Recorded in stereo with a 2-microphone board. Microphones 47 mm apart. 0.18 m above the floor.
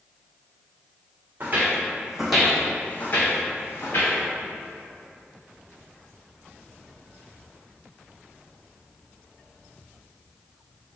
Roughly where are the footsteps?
Right.